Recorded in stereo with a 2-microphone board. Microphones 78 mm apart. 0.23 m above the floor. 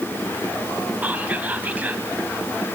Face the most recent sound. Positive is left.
turn(degrees=-20)  # may be behind; listen again after turning